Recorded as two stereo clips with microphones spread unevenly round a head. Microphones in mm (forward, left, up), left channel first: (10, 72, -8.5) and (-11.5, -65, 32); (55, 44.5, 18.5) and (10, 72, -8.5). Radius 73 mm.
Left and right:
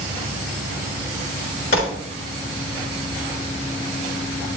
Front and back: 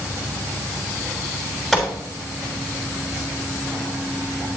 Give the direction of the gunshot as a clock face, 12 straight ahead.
10 o'clock.